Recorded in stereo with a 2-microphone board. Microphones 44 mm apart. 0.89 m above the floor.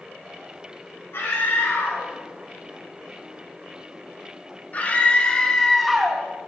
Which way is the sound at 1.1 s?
65° left (ahead or behind).